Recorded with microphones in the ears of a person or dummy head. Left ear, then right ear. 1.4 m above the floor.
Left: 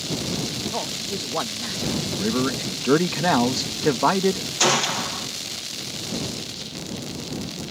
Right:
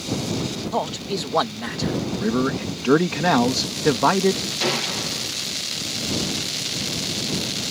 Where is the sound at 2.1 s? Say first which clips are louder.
Right 1 dB; 5° left (ahead or behind).